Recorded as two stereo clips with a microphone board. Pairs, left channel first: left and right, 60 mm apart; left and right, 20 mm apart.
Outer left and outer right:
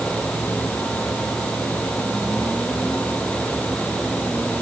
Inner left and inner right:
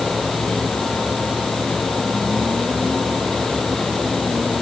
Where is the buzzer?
No buzzer in this recording.